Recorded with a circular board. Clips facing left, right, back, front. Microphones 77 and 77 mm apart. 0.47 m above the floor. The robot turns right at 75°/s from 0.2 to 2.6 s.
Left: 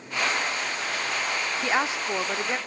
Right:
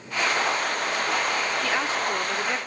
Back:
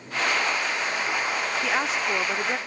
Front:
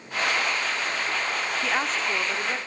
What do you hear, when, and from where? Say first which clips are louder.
1.6 s a woman speaking: even, even; 90° left, 0.7 m; by 2.6 s 160° left, 0.7 m